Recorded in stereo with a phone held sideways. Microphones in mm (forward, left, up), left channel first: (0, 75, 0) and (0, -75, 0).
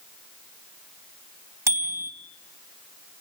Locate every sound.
1.7 s a bicycle bell: 20° right (ahead or behind), 4 m